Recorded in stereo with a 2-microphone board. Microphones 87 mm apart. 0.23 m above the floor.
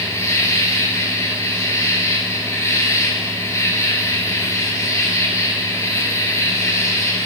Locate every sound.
0.0 s an insect: 35° left (ahead or behind), 2.5 m